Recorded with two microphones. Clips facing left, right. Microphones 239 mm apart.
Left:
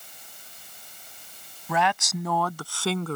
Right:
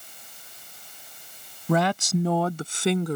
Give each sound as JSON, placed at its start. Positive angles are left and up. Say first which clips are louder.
{"t": 1.7, "sound": "a woman speaking", "louder": "right 5 dB", "side_deg": -40}